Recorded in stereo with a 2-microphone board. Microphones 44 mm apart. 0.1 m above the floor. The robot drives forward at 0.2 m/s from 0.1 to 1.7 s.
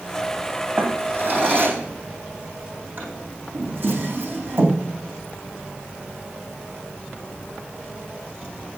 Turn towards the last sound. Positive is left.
turn(degrees=-45)  # may be behind; listen again after turning